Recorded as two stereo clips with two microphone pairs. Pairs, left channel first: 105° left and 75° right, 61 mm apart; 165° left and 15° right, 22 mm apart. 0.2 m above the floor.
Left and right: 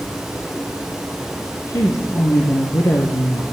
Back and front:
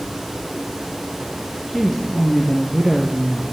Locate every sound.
1.7 s a woman speaking: 75° left, 4.5 m